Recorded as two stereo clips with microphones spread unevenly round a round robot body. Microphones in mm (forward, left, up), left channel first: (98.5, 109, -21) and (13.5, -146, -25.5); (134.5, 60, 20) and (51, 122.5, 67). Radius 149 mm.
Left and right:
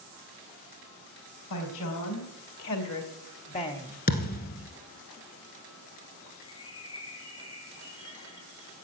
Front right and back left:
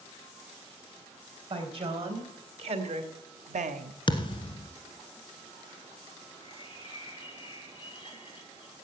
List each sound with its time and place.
1.5 s a woman speaking: 105° left, 4 m; by 4.0 s 175° left, 0.9 m
4.1 s a thud: 15° left, 1.4 m
6.4 s a bird: straight ahead, 3.5 m